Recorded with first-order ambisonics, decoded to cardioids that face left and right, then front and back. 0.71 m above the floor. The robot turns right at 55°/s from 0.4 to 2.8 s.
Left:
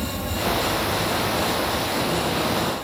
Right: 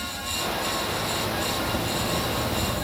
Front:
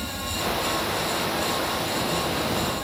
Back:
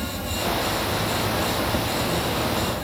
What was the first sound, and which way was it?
An insect, 115° left.